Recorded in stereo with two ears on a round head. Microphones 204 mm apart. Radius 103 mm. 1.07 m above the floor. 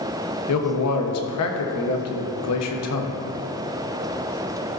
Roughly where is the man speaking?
Left.